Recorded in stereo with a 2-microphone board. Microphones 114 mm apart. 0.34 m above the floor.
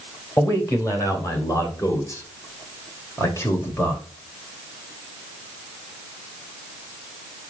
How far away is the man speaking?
About 1.9 m.